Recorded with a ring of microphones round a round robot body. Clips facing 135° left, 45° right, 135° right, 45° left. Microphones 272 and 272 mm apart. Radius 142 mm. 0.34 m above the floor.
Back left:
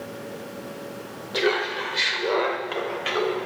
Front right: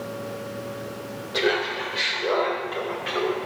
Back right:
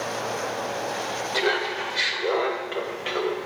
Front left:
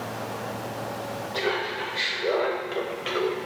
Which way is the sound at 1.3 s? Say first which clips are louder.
Even, back right 2 dB; 150° right.